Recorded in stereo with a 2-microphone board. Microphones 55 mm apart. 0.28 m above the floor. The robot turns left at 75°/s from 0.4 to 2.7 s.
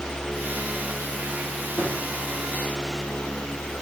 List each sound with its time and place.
1.8 s a drawer: 85° left, 5 m; by 1.9 s 75° left (ahead or behind), 5 m